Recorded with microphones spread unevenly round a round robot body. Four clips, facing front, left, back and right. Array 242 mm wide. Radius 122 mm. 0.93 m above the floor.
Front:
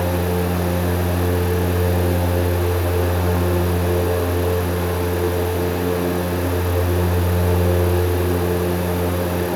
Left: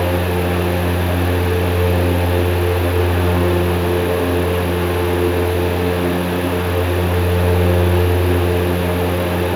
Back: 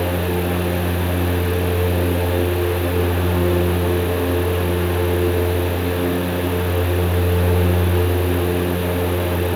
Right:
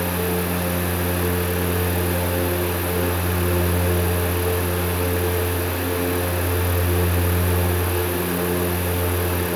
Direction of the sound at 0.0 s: 155° right.